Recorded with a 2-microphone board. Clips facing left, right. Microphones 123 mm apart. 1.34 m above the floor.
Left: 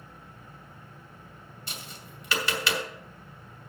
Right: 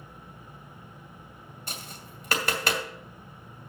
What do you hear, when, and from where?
1.7 s tapping: 45° right (ahead or behind), 2 m